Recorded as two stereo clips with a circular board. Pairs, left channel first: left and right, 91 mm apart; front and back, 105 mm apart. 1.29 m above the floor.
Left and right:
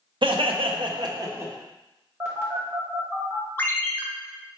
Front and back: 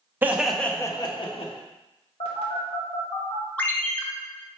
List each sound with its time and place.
0.2 s laughter: 110° right, 0.6 m; by 1.5 s 25° right, 0.8 m
2.2 s a phone buzzing: 25° right, 0.9 m
3.6 s a ringtone: 55° left, 0.5 m